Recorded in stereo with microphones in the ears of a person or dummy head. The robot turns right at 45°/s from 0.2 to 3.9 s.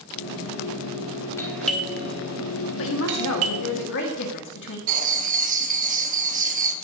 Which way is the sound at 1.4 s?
15° left (ahead or behind).